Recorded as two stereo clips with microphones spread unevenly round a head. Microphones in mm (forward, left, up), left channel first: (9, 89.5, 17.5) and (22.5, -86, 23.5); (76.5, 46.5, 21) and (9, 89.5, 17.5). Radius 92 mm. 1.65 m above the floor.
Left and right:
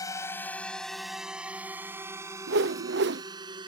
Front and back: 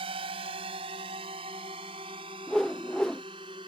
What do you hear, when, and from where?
0.0 s a drone: 170° left; by 3.7 s 155° right
2.5 s a whoosh: 120° right